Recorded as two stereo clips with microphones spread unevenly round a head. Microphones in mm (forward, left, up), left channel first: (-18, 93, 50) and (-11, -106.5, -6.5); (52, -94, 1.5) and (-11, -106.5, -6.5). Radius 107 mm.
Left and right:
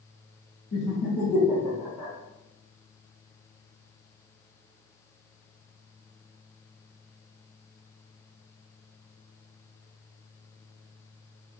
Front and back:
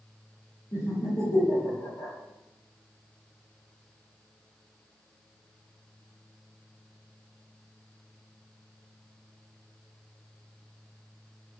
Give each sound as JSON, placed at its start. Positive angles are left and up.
{"t": 0.7, "sound": "laughter", "azimuth_deg": 55, "distance_m": 1.1}